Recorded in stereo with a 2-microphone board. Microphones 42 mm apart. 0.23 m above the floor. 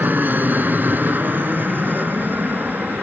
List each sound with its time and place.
0.0 s an aircraft: 45° right (ahead or behind); by 3.0 s 50° right (ahead or behind)